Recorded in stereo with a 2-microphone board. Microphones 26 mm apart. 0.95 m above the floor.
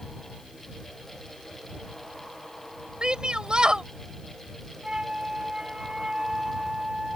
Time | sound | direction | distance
3.0 | a shout | 35° right (ahead or behind) | ?
4.8 | a flute | 30° right (ahead or behind) | ?